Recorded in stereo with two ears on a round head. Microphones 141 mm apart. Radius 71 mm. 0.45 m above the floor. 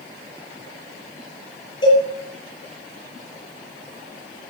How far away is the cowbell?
About 7.5 m.